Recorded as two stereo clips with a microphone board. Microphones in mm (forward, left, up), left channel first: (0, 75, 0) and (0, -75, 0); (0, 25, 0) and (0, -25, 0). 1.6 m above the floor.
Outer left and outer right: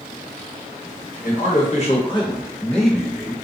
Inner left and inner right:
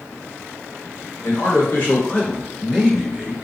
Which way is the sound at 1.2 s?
65° left (ahead or behind).